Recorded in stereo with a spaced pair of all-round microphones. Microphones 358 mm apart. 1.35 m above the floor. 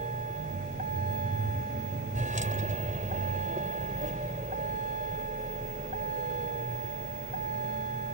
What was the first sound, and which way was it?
A vehicle, 20° right (ahead or behind).